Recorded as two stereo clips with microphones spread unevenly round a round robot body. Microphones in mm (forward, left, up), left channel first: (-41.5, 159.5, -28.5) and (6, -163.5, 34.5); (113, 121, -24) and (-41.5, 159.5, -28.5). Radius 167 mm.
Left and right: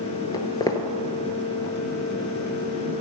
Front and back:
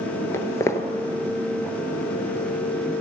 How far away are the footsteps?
About 0.8 m.